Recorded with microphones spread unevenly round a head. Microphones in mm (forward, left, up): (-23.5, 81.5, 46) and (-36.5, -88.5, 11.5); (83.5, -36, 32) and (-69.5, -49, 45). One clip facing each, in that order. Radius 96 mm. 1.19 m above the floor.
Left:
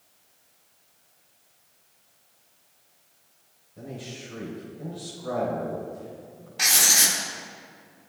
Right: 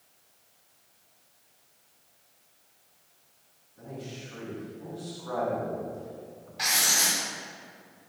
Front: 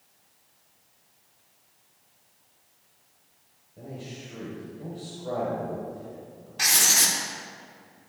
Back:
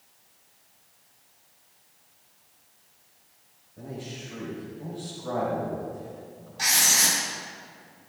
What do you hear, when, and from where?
3.8 s a man speaking: 80° left, 5 m
6.6 s writing: 40° left, 3 m